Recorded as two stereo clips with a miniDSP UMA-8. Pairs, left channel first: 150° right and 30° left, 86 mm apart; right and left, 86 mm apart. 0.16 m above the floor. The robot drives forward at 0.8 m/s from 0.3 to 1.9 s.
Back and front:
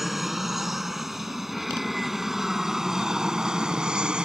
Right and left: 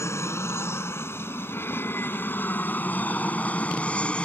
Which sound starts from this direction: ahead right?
An aircraft, at 0.0 s.